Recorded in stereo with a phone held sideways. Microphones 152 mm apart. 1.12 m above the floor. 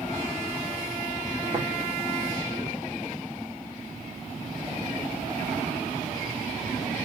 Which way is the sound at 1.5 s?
45° right (ahead or behind).